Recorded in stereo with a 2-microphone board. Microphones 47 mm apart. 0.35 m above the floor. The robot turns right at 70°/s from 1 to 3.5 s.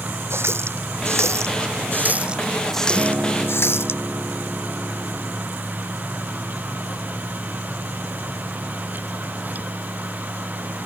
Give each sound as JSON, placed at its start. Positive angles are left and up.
{"t": 0.3, "sound": "a running tap", "side_deg": -65}
{"t": 3.0, "sound": "a guitar", "azimuth_deg": -65}